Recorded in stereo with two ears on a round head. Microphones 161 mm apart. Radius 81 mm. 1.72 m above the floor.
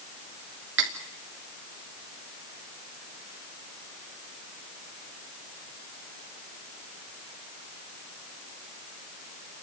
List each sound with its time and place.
0.8 s cutlery clinking: 70° right (ahead or behind), 3 m